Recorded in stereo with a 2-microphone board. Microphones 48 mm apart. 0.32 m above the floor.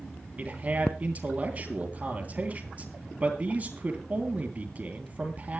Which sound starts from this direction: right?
A man speaking, at 0.4 s.